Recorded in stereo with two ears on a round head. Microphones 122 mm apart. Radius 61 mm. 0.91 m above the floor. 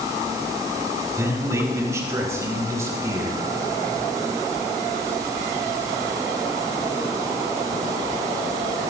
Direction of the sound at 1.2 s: 25° right (ahead or behind).